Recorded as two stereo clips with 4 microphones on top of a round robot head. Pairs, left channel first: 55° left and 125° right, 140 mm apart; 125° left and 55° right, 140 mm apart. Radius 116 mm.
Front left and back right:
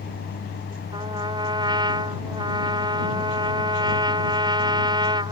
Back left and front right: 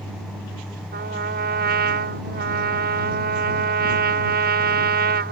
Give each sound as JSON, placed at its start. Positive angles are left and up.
{"t": 0.9, "sound": "a trumpet", "azimuth_deg": -65}